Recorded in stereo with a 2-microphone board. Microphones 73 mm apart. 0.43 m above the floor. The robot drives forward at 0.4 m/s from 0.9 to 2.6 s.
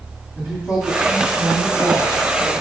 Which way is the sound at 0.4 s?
20° right (ahead or behind).